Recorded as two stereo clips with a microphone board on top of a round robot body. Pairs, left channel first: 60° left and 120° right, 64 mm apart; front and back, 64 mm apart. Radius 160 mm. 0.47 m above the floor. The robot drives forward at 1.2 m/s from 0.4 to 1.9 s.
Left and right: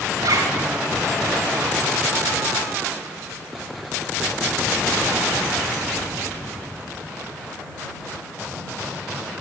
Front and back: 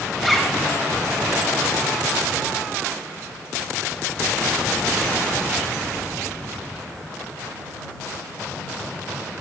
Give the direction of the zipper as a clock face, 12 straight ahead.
3 o'clock.